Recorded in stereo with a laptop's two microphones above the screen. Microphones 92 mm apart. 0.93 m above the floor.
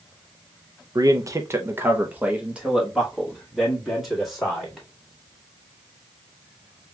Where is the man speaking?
40° right (ahead or behind), 0.6 m; by 4.9 s centre (ahead or behind), 2.5 m.